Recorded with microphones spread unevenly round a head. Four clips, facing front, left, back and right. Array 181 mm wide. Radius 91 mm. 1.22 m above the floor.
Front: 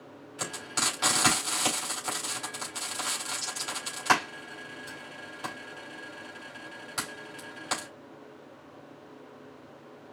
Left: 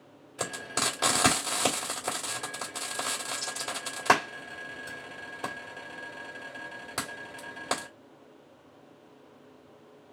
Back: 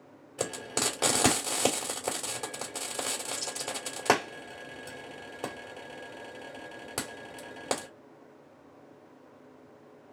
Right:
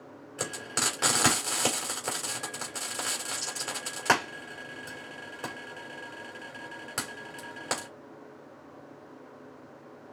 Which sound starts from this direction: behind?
Frying, at 0.4 s.